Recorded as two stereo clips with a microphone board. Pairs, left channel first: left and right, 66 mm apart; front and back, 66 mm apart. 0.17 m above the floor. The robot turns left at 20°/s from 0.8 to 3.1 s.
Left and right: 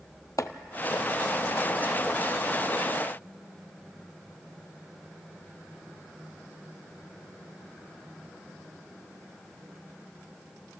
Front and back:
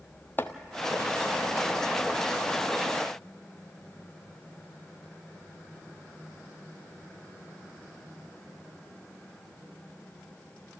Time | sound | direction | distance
0.4 | chopping | 60° left | 0.8 m